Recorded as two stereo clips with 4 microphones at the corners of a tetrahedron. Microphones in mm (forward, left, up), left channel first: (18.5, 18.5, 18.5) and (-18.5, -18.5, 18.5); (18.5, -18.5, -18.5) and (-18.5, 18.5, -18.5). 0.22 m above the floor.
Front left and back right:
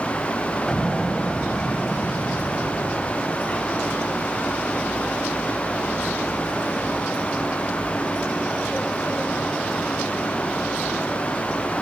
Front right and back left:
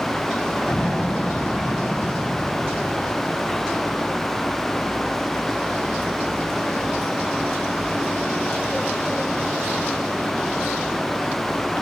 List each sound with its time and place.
0.7 s an explosion: 25° right, 1.6 m